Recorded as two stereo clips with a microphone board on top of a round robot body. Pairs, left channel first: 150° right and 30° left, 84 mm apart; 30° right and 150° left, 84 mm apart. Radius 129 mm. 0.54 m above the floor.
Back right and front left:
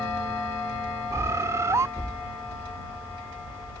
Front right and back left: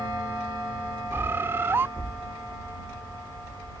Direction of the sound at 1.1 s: 85° left.